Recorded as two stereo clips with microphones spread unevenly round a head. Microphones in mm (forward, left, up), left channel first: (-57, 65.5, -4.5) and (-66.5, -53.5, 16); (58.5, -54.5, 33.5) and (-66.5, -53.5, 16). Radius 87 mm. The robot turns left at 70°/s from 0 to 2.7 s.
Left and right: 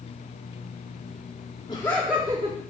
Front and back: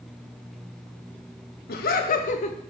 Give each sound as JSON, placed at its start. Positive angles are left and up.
{"t": 1.7, "sound": "laughter", "azimuth_deg": 20, "distance_m": 0.6}